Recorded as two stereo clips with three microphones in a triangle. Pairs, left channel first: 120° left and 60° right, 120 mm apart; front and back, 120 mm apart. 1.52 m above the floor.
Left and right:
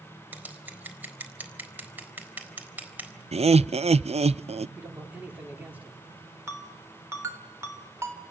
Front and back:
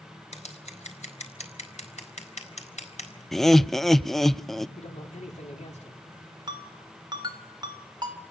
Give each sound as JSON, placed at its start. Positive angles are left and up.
{"t": 0.3, "sound": "scissors", "azimuth_deg": 15, "distance_m": 3.5}
{"t": 3.3, "sound": "laughter", "azimuth_deg": -90, "distance_m": 0.5}
{"t": 4.8, "sound": "a man speaking", "azimuth_deg": 15, "distance_m": 5.0}
{"t": 6.5, "sound": "a ringtone", "azimuth_deg": -125, "distance_m": 3.5}